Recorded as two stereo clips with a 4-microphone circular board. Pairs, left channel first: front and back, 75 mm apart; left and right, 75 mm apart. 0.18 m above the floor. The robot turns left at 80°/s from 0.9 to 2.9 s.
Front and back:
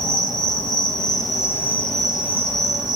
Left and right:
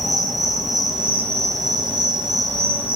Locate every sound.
0.0 s an insect: straight ahead, 0.9 m; by 3.0 s 160° right, 0.9 m